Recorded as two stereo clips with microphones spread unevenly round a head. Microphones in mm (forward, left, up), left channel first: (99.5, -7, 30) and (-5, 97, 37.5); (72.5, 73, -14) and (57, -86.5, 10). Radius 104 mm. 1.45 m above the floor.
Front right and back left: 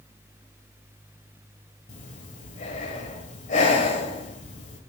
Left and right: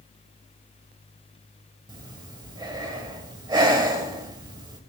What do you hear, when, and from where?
1.9 s breathing: 60° right, 1.5 m